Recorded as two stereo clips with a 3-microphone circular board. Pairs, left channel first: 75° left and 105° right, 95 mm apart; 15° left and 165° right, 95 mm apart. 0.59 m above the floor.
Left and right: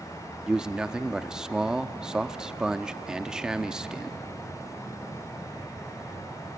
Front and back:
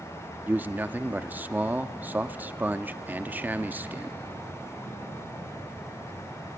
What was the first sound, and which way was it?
A man speaking, 170° right.